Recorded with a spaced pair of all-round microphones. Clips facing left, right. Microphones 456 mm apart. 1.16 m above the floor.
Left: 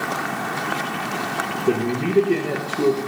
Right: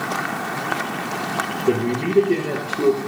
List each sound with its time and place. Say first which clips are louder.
1.7 s a man speaking: right 1 dB; centre (ahead or behind), 1.3 m